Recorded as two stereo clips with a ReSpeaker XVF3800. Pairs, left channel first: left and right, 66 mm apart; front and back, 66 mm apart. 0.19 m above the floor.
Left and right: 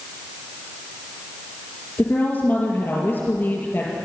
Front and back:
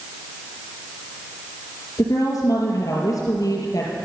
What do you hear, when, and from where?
2.0 s a woman speaking: 30° left, 4 m